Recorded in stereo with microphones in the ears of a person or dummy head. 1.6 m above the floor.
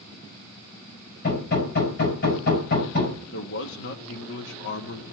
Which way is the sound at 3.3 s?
70° left (ahead or behind).